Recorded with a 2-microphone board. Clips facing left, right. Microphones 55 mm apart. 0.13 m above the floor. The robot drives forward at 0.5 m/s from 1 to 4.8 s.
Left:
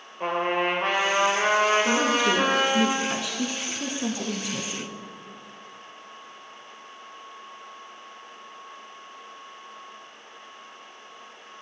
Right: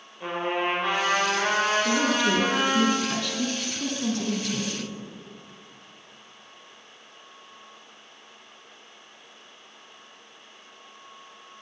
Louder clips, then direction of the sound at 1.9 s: Left 1 dB; 10° left (ahead or behind).